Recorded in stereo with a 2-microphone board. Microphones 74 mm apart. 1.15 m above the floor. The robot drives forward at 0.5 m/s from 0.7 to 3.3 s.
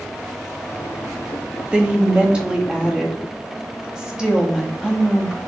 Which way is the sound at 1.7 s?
15° right (ahead or behind).